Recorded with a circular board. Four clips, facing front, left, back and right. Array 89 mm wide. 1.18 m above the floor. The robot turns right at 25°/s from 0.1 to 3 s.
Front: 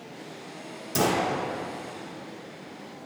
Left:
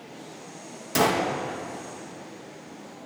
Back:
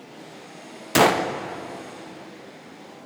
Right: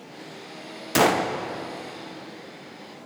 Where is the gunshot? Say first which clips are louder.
Right 3 dB, back 7 dB; 160° right, 0.5 m; by 1.3 s 150° right, 0.5 m.